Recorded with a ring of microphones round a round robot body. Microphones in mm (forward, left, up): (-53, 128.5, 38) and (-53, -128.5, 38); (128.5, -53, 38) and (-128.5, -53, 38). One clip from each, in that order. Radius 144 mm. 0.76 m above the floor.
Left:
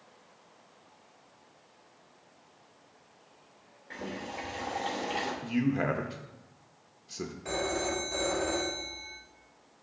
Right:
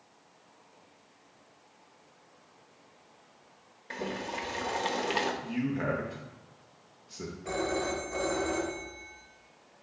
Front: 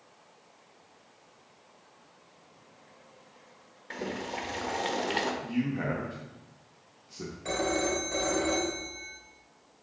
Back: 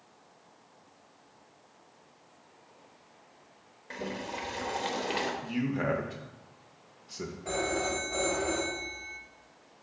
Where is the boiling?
80° right, 1.1 m.